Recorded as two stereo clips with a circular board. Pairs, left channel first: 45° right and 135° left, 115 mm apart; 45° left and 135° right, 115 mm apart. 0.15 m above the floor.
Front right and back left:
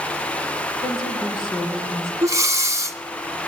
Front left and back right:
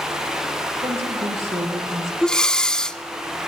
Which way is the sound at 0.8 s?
95° right.